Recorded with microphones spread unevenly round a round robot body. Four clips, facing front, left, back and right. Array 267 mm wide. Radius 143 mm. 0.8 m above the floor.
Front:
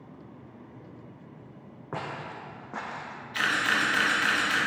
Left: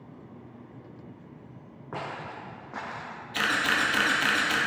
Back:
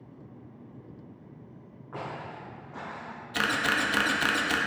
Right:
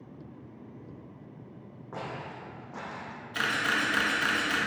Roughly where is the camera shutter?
Behind left.